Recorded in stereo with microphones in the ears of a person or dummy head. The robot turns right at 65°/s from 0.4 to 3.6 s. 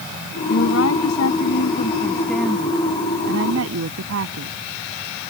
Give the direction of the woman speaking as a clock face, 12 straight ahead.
10 o'clock.